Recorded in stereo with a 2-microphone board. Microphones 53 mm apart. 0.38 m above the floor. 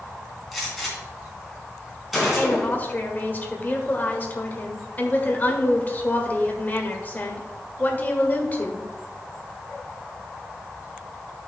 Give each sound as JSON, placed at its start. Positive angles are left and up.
{"t": 0.5, "sound": "a gunshot", "side_deg": 0, "distance_m": 3.0}
{"t": 2.4, "sound": "a woman speaking", "side_deg": 30, "distance_m": 1.4}